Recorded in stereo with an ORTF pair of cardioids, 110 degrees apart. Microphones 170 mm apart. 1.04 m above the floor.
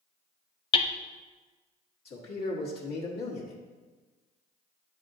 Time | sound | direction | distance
0.7 | hammering | 30° left | 0.5 m
2.0 | a man speaking | 65° left | 1.3 m